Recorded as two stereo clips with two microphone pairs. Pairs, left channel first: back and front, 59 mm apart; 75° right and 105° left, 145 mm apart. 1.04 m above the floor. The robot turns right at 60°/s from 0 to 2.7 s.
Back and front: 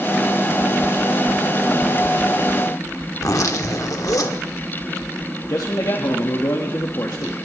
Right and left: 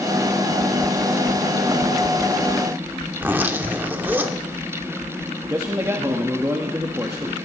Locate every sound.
3.1 s a zipper: straight behind, 1.1 m
5.5 s a man speaking: 175° left, 1.2 m